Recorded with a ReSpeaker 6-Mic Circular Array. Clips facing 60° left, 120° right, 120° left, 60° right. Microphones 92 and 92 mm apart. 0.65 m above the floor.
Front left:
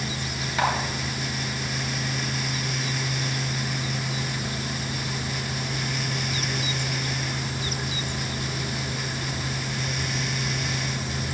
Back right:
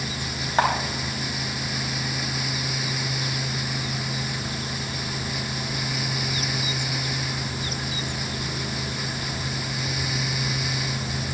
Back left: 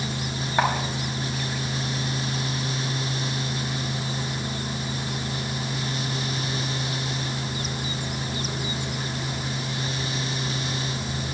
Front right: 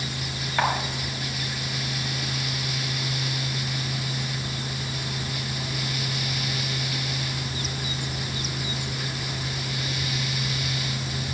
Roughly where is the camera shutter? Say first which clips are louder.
Back right 3 dB, back left 2 dB; behind.